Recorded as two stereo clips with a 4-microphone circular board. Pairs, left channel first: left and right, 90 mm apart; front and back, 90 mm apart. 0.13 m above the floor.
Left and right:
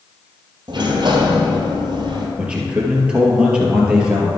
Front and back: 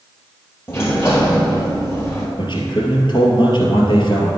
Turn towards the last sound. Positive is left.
turn(degrees=-15)